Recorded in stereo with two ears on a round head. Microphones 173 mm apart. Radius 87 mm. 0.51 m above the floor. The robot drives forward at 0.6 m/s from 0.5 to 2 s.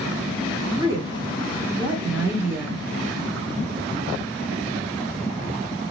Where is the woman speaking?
20° right (ahead or behind), 0.9 m; by 2.8 s 15° right (ahead or behind), 1.3 m.